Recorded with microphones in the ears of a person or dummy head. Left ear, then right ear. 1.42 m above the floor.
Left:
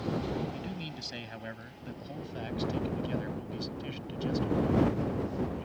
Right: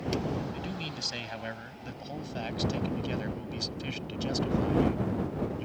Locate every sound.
0.5 s a man speaking: 20° right (ahead or behind); by 5.7 s 35° right (ahead or behind)